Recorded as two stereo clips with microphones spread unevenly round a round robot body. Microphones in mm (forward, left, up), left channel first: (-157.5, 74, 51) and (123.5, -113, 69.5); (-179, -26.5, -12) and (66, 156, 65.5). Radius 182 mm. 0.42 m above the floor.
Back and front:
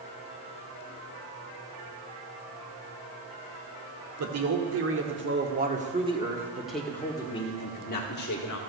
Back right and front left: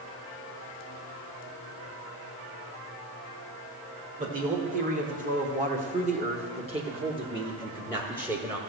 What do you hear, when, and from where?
4.2 s a man speaking: 35° right, 1.8 m; by 8.6 s 135° left, 1.7 m